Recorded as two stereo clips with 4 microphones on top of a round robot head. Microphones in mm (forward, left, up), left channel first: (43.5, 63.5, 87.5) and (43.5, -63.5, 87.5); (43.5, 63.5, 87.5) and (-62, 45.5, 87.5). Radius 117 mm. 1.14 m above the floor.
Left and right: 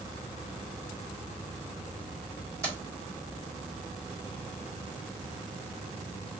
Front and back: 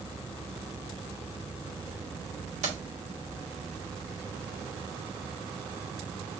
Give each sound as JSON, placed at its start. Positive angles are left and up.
{"t": 2.6, "sound": "keys jangling", "azimuth_deg": -160, "distance_m": 1.9}